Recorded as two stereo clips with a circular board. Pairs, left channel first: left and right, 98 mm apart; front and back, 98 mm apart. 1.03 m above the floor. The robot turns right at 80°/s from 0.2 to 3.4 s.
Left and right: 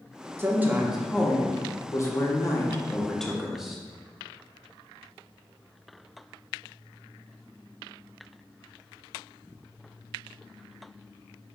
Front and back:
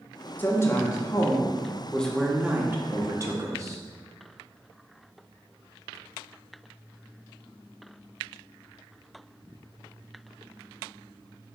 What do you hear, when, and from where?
0.4 s a woman speaking: 55° right, 0.7 m; by 3.8 s 175° right, 0.7 m